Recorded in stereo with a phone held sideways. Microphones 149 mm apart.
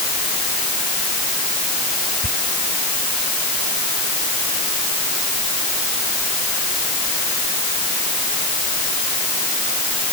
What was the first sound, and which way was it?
Whispering, 60° right (ahead or behind).